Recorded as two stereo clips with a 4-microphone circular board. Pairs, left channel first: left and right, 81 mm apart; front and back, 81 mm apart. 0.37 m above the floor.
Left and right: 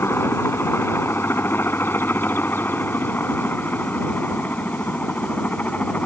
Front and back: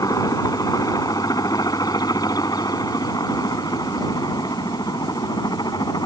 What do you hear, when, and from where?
0.0 s a helicopter: 35° left; by 6.1 s 20° left